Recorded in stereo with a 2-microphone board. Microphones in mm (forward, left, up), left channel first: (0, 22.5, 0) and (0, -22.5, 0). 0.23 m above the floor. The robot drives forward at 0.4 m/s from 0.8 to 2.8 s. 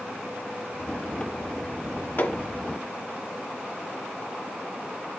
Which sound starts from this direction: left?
Hammering, at 2.2 s.